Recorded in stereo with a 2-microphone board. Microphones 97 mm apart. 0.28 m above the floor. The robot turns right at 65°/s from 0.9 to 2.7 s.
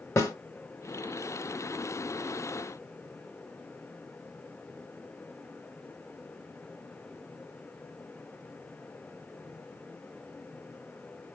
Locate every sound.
0.2 s a snare drum: 30° left (ahead or behind), 1.2 m